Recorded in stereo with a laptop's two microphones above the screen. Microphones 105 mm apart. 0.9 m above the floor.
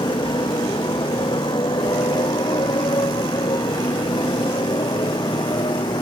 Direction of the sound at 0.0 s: 45° left (ahead or behind).